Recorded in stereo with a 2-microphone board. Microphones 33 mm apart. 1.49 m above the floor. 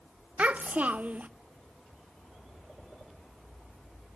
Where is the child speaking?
45° right (ahead or behind), 0.6 m.